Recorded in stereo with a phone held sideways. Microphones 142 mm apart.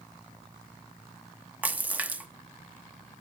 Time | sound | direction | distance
1.6 | a splash | 10° right (ahead or behind) | 0.7 m